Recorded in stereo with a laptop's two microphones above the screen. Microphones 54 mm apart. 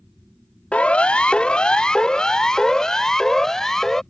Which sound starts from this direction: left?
A siren, at 0.7 s.